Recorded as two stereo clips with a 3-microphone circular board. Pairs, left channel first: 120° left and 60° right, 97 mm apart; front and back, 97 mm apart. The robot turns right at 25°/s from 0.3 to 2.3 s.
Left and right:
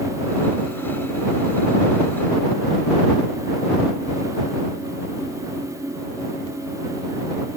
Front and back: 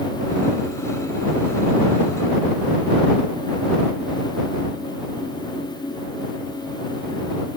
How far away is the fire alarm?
I don't hear a fire alarm.